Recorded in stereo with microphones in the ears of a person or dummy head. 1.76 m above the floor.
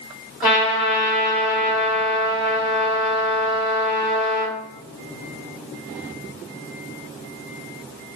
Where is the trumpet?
10° right (ahead or behind), 1.9 m.